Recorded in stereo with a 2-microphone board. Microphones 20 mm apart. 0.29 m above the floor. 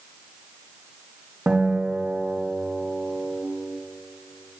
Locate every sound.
1.5 s a guitar: 80° right, 3 m